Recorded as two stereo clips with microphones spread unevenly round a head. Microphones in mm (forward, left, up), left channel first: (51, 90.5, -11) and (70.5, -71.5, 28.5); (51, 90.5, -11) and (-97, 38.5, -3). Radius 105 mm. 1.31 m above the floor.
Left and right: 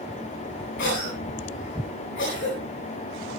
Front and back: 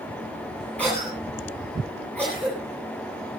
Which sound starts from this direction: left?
A cough, at 0.8 s.